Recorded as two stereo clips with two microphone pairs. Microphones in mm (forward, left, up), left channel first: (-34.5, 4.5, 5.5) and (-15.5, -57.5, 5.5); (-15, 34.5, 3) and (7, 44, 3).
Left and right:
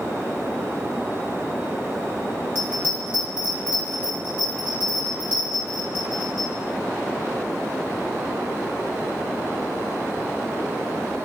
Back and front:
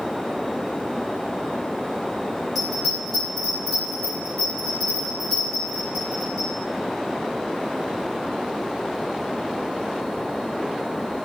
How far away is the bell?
About 1.6 m.